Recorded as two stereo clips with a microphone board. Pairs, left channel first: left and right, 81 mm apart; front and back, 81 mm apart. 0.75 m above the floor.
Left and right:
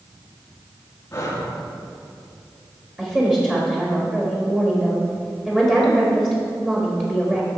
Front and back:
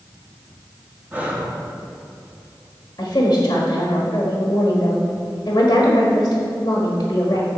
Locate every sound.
1.1 s breathing: 120° left, 1.1 m
3.0 s a woman speaking: 20° right, 1.2 m